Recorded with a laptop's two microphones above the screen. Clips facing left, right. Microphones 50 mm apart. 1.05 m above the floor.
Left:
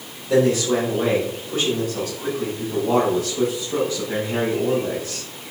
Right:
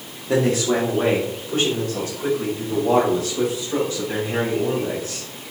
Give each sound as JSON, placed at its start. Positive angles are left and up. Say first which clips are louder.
{"t": 0.3, "sound": "a man speaking", "louder": "left 1 dB", "side_deg": -55, "distance_m": 1.8}